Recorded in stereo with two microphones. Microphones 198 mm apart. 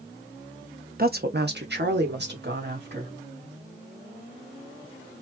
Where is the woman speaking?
50° right (ahead or behind), 0.9 m; by 3.1 s 60° right (ahead or behind), 2.5 m.